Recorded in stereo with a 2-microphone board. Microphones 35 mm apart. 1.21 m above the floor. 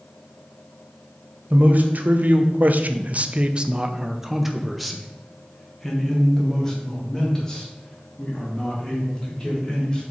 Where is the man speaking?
50° right (ahead or behind), 1.0 m; by 10.0 s 20° left (ahead or behind), 3.5 m.